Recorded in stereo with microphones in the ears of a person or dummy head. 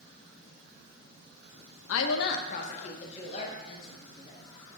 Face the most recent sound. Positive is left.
turn(degrees=30)  # may be behind; listen again after turning